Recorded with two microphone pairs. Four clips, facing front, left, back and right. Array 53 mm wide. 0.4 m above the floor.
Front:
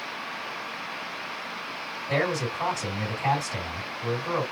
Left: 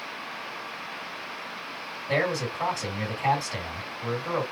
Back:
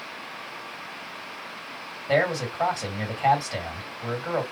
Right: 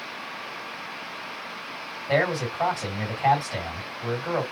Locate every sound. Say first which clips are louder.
2.1 s a man speaking: right 3 dB, back 3 dB; 140° right, 2 m